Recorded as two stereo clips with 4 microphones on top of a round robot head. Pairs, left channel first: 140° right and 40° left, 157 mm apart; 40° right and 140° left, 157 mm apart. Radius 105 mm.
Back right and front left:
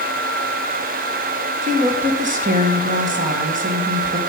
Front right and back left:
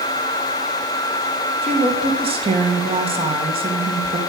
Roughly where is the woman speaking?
Left.